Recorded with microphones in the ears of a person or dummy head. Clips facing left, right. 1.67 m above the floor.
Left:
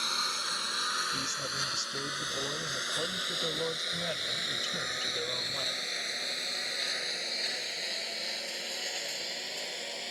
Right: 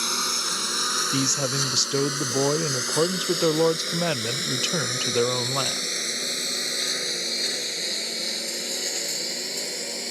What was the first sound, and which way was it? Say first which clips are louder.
A lawn mower: right 8 dB; 50° right (ahead or behind).